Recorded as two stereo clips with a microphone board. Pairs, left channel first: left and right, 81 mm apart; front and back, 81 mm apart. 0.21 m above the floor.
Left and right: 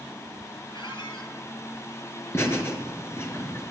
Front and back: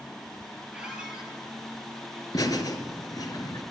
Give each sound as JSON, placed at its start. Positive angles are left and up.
{"t": 0.7, "sound": "a squeak", "azimuth_deg": 100, "distance_m": 2.5}
{"t": 2.3, "sound": "laughter", "azimuth_deg": 35, "distance_m": 3.0}